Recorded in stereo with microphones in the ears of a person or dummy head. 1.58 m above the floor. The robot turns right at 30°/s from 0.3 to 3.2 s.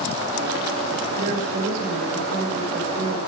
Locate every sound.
1.2 s a woman speaking: 105° right, 4 m; by 3.2 s 45° right, 4 m